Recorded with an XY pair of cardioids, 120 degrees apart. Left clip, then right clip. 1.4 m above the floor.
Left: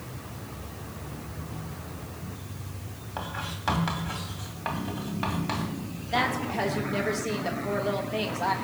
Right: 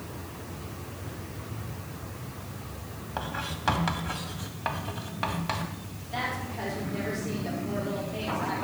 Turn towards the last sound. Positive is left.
turn(degrees=50)